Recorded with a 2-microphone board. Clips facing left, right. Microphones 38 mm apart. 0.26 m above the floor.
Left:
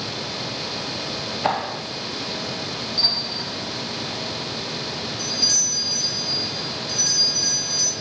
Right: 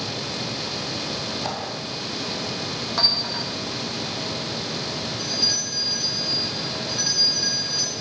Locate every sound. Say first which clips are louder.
1.4 s a clap: left 6 dB; 40° left (ahead or behind), 1.8 m
3.0 s a clink: right 2 dB; 75° right (ahead or behind), 9 m
5.2 s a doorbell: left 2 dB; 15° right (ahead or behind), 5 m